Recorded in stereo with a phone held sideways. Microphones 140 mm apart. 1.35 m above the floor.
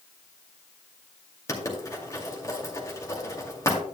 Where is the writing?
25° left (ahead or behind), 2 m.